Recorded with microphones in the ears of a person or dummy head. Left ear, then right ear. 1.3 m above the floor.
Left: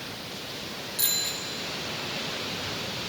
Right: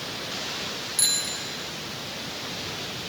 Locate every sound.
1.0 s a bicycle bell: 15° right (ahead or behind), 2 m